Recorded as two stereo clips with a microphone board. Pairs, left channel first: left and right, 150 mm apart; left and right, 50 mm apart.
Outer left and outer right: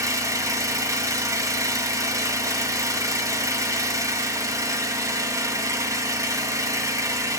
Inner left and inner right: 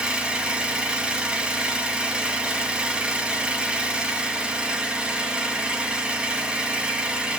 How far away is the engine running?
About 1.8 m.